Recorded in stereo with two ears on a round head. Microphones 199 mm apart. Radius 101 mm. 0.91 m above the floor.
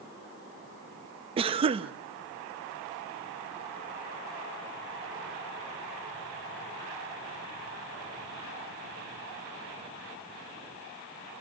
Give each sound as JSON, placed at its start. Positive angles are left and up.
{"t": 1.4, "sound": "a cough", "side_deg": -25, "distance_m": 0.9}